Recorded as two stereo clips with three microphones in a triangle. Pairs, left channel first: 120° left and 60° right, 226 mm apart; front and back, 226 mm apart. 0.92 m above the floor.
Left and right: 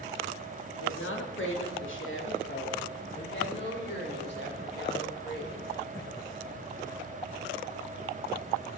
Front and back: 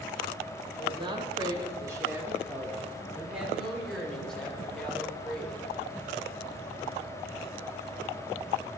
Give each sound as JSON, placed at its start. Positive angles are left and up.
{"t": 0.8, "sound": "a woman speaking", "azimuth_deg": 120, "distance_m": 2.0}